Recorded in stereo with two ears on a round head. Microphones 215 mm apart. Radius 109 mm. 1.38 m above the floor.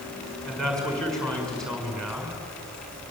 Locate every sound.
0.5 s a man speaking: 5° left (ahead or behind), 6 m